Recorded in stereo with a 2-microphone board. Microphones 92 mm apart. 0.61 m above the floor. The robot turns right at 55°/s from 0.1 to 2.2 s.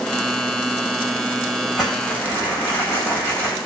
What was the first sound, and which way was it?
Crumpling, 5° left (ahead or behind).